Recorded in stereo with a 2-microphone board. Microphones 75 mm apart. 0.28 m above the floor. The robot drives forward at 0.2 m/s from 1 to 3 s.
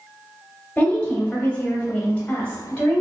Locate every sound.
0.8 s a woman speaking: 20° left (ahead or behind), 1.0 m; by 3.0 s 15° left (ahead or behind), 1.2 m